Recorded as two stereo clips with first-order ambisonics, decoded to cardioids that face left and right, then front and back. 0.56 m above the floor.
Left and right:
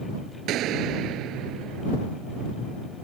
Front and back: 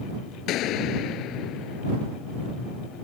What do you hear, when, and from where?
0.5 s a gunshot: 45° right